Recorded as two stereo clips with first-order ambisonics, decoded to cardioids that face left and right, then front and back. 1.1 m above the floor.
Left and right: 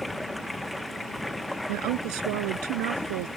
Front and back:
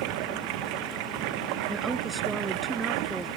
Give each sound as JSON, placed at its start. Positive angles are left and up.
{"t": 0.0, "sound": "running water", "azimuth_deg": 175}
{"t": 1.7, "sound": "a woman speaking", "azimuth_deg": -105}